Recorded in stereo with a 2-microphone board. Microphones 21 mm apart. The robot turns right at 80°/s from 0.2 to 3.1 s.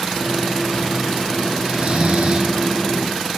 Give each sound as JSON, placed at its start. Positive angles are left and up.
{"t": 1.6, "sound": "snoring", "azimuth_deg": -120, "distance_m": 1.4}